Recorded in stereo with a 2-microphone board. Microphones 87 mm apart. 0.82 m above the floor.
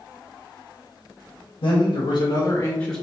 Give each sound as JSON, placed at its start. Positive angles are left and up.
{"t": 1.6, "sound": "a man speaking", "side_deg": 65, "distance_m": 0.8}